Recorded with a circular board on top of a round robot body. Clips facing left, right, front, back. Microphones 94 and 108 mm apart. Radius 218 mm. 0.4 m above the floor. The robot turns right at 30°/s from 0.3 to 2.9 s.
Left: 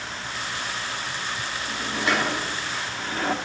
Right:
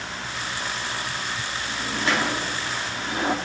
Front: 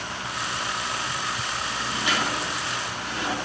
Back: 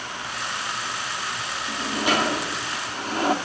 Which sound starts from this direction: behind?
A sliding door, at 1.7 s.